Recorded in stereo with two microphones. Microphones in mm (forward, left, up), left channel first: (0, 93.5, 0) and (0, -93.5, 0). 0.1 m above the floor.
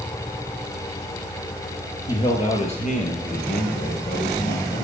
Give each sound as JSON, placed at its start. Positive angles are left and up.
{"t": 2.1, "sound": "a man speaking", "side_deg": 25, "distance_m": 2.5}